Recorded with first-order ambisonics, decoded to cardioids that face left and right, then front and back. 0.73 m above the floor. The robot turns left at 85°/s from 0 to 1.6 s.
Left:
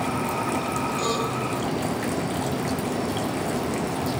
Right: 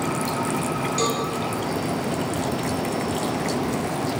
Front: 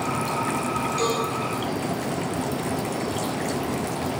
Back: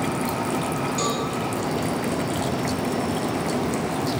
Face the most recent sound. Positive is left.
turn(degrees=-150)